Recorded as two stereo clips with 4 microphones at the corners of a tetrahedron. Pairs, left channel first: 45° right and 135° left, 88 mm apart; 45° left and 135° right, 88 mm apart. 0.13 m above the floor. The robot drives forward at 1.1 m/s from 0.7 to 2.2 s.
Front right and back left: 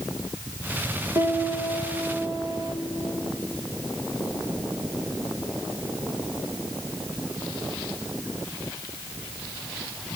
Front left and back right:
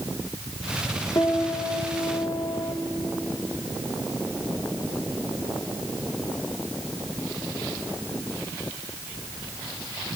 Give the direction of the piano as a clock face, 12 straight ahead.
9 o'clock.